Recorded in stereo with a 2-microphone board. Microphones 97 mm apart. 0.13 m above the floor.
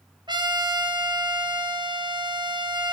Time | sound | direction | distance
0.3 | a trumpet | 50° right (ahead or behind) | 2.5 m